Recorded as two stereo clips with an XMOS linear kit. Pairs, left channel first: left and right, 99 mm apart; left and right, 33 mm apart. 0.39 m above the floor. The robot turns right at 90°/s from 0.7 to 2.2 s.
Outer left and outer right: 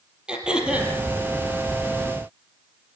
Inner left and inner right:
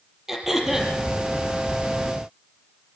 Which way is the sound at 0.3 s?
10° right (ahead or behind).